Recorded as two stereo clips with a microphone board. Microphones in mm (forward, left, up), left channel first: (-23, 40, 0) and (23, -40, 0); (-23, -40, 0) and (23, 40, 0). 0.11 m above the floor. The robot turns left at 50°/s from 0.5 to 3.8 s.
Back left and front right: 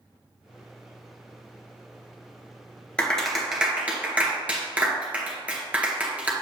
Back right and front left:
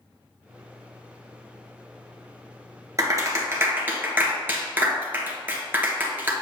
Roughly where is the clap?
Ahead left.